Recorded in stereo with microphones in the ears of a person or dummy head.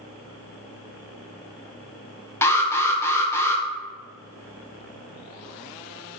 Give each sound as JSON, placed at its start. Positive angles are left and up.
{"t": 2.4, "sound": "an alarm", "side_deg": 15, "distance_m": 0.5}